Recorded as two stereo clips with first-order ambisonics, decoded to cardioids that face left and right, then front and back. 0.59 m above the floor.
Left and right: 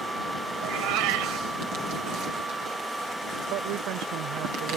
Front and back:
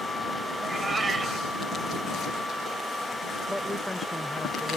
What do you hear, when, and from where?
0.6 s a cat meowing: 100° right
3.5 s a man speaking: 85° right